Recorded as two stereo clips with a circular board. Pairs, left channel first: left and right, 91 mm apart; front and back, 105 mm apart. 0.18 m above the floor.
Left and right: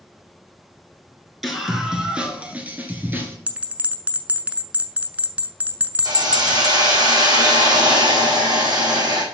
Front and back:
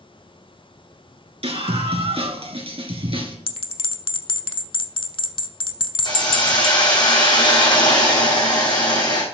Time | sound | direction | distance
1.4 | a scream | straight behind | 2.5 m
3.5 | a bell | 20° right | 0.7 m
6.0 | a hiss | 45° right | 4 m